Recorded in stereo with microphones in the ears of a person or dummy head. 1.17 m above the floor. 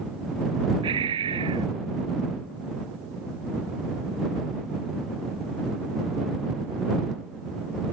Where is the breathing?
30° right (ahead or behind).